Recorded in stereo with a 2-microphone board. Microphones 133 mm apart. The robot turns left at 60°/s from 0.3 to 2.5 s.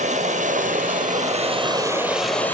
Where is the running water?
60° right, 1.7 m; by 2.5 s 165° left, 1.7 m.